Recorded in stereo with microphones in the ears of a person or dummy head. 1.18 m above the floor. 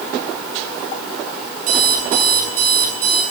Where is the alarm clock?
75° right (ahead or behind), 7 m.